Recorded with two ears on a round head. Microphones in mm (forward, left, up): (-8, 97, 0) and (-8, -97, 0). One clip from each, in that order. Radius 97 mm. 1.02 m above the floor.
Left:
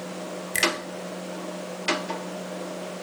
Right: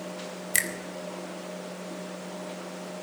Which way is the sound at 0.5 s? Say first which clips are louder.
Left 5 dB; 30° right (ahead or behind).